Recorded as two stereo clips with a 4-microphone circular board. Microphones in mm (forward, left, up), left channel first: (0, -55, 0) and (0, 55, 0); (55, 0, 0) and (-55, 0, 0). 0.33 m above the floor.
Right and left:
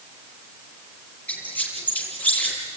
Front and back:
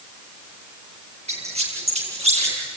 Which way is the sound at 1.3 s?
165° right.